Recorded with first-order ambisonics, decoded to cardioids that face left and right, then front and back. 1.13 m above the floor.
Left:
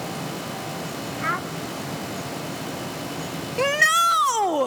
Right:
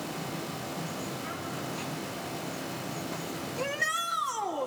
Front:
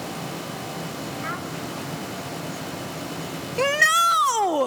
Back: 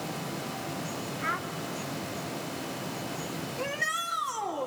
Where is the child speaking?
95° left, 0.9 m.